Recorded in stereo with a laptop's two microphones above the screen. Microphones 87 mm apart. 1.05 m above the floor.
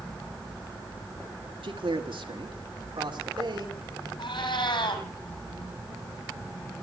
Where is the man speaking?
80° right, 1.9 m; by 4.1 s 60° right (ahead or behind), 4 m.